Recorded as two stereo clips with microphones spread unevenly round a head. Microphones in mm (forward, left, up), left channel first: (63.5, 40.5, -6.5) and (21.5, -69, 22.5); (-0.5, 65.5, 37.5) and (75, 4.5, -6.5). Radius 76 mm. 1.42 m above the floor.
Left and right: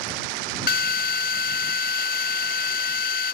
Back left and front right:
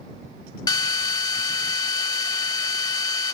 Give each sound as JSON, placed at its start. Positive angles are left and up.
{"t": 0.7, "sound": "a drill", "azimuth_deg": 100}